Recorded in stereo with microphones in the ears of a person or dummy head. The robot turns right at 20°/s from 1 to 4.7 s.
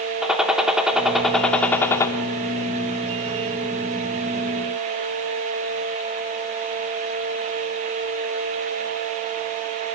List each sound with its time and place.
0.2 s a gunshot: 5° right (ahead or behind), 2.5 m; by 2.1 s 15° left (ahead or behind), 2.5 m